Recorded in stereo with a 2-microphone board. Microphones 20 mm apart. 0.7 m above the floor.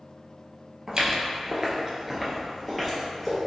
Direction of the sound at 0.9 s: 35° right (ahead or behind).